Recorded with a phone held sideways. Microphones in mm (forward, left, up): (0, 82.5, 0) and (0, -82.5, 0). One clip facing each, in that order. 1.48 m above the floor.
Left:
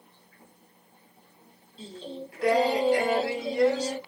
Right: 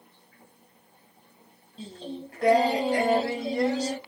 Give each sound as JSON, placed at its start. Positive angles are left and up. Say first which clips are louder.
{"t": 1.8, "sound": "singing", "louder": "right 1 dB", "side_deg": -40, "distance_m": 1.3}